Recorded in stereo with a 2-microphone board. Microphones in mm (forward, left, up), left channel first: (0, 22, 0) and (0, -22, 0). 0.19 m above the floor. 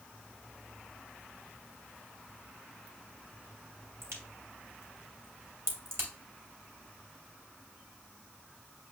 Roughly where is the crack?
Right.